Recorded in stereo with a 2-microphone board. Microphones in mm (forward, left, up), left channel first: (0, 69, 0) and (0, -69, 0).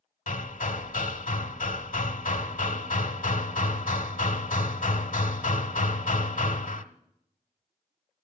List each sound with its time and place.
0.3 s hammering: 80° left, 0.8 m